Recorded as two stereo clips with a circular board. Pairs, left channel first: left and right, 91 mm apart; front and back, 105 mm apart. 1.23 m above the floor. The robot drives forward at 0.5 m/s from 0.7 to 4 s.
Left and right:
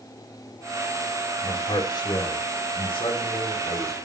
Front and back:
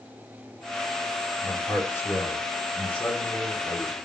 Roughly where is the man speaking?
Left.